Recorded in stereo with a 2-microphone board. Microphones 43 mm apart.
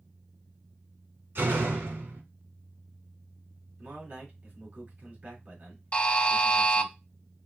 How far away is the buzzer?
About 0.5 m.